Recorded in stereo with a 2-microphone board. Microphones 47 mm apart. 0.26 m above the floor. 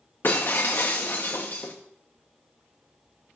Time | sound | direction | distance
0.2 | breaking glass | 55° left (ahead or behind) | 1.7 m